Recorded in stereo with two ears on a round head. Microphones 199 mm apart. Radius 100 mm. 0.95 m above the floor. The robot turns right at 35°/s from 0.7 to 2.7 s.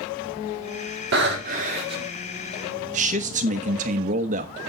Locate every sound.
1.1 s breathing: 55° right, 2.5 m; by 2.1 s 20° right, 2.5 m
2.9 s a man speaking: 35° right (ahead or behind), 1.3 m